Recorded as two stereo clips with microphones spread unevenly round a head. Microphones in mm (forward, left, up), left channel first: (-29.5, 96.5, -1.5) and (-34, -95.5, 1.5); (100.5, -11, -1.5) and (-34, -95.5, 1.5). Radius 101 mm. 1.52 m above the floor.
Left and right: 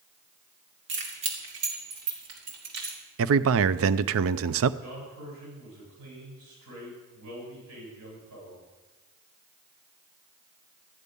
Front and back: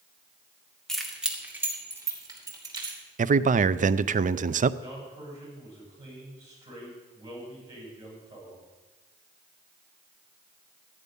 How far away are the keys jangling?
About 2.5 m.